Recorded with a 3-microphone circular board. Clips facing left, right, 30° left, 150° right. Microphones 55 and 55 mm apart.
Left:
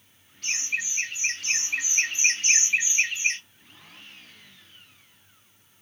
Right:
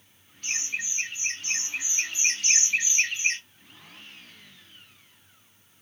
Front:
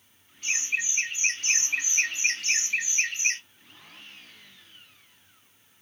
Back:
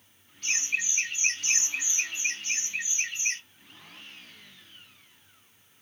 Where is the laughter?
100° left, 1.5 m; by 3.4 s straight ahead, 1.0 m.